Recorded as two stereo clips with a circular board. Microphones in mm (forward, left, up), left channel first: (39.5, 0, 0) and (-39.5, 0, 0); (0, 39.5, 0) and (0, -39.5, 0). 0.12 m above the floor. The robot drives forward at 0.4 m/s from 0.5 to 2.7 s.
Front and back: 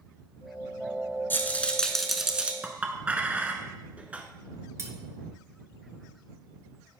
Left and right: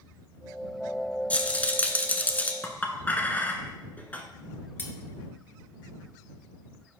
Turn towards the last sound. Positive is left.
turn(degrees=145)